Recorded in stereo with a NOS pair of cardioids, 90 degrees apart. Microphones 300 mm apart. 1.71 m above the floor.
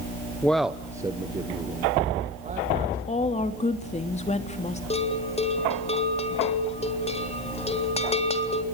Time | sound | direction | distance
0.4 | a man speaking | 5° left | 0.9 m
3.1 | a woman speaking | 20° left | 3 m
4.9 | a bell | 20° left | 3.5 m